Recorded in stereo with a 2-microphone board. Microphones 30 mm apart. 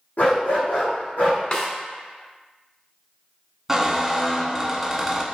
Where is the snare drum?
30° left (ahead or behind), 1.0 m.